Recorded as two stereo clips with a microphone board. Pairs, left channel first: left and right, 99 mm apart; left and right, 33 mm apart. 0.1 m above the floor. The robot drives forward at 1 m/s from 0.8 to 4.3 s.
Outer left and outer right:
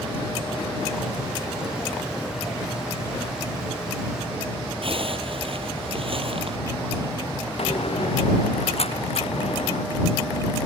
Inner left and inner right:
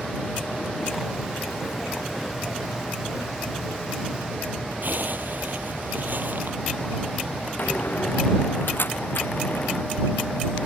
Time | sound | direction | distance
4.8 | a zipper | 60° right (ahead or behind) | ?
7.6 | a door slam | 70° left (ahead or behind) | ?